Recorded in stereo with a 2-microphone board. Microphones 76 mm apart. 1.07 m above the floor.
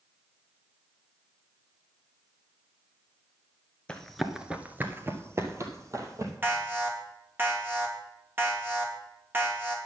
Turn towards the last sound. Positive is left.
turn(degrees=-30)  # may be behind; listen again after turning